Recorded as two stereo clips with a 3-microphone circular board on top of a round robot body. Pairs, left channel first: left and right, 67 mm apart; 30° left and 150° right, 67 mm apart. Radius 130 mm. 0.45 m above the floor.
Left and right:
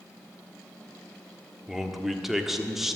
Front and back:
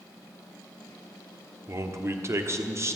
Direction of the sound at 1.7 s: 175° right.